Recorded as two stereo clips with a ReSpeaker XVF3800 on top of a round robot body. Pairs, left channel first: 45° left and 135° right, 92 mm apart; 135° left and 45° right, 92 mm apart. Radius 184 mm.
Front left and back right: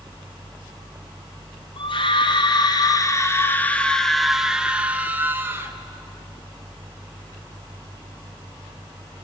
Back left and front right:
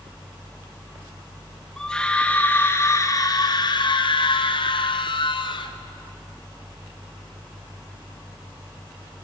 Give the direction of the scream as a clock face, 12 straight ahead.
10 o'clock.